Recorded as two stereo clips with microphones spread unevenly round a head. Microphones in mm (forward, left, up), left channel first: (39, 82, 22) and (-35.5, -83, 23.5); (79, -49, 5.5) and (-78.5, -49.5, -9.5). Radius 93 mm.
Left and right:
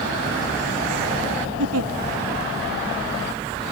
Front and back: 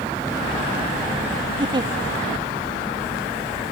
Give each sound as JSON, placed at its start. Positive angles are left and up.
{"t": 1.6, "sound": "a giggle", "azimuth_deg": -115}